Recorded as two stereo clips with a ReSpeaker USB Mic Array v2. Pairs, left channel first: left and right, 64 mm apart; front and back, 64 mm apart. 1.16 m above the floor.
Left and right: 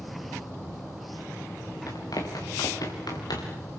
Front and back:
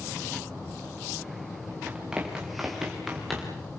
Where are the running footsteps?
105° left, 6 m; by 3.6 s 90° left, 6.5 m.